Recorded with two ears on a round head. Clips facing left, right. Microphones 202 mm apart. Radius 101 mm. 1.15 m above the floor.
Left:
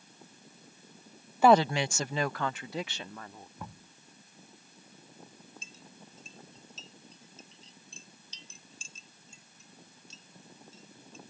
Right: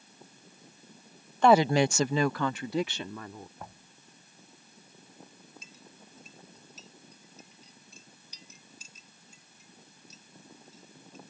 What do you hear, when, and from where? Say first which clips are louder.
1.4 s a woman speaking: right 1 dB; 5° left (ahead or behind); by 3.5 s 80° right
3.6 s knocking: left 1 dB; 90° left
5.6 s a clink: left 1 dB; 25° left (ahead or behind)